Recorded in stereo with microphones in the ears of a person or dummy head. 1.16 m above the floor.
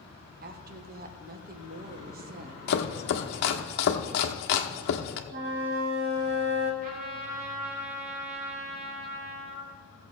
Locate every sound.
0.4 s a woman speaking: 40° right (ahead or behind), 0.9 m
2.7 s chopping: 60° left (ahead or behind), 1.1 m
5.3 s a flute: 60° right (ahead or behind), 1.6 m
6.8 s a trumpet: 50° right (ahead or behind), 3.5 m